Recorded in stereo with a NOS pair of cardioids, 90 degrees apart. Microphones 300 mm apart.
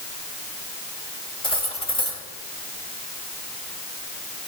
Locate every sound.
1.4 s cutlery clinking: 15° left, 3.5 m